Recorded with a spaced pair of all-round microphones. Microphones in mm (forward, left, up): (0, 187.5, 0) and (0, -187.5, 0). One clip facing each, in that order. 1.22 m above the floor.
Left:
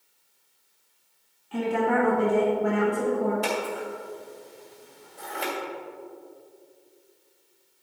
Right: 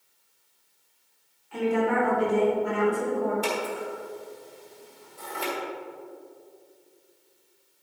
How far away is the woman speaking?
About 1.8 m.